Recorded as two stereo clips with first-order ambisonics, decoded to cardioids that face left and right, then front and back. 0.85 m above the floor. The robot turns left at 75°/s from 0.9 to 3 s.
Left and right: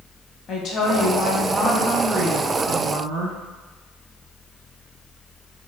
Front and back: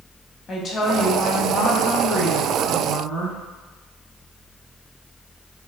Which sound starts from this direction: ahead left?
A woman speaking, at 0.5 s.